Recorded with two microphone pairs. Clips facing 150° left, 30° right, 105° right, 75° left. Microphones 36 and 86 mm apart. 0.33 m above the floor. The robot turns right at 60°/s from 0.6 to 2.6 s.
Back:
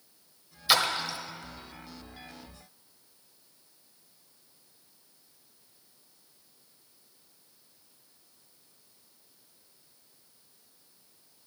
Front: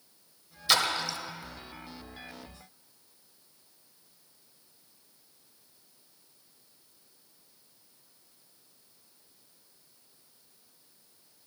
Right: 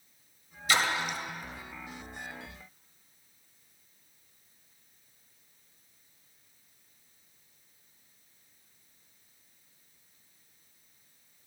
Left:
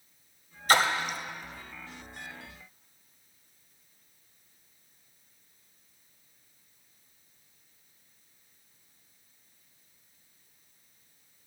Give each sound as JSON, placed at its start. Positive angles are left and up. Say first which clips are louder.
{"t": 0.7, "sound": "a splash", "louder": "back 1 dB, left 4 dB", "azimuth_deg": 70, "distance_m": 0.9}